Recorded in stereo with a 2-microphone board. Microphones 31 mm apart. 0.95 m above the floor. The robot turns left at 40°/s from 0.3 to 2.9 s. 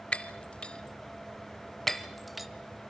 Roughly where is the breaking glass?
Left.